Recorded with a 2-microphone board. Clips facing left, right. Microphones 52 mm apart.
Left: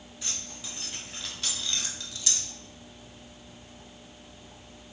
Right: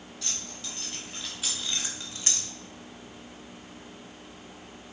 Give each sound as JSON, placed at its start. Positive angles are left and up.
{"t": 0.2, "sound": "keys jangling", "side_deg": 15, "distance_m": 3.5}